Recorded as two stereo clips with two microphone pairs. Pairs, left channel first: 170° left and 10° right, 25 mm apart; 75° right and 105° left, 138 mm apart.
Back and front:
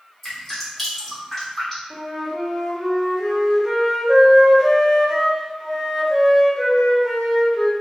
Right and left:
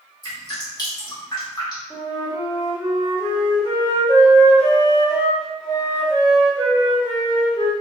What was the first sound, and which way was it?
Dripping, 110° right.